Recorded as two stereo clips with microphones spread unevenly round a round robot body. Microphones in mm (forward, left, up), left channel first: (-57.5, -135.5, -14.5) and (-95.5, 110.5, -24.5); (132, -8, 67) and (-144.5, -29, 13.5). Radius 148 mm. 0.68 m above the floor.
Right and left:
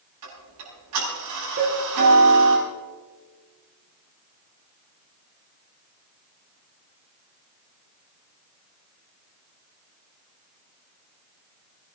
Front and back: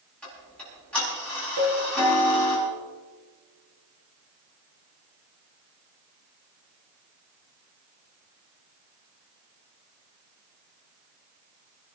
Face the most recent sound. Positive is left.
turn(degrees=145)